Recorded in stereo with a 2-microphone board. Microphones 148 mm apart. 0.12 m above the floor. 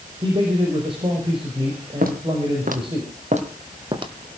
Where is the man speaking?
35° right (ahead or behind), 5 m.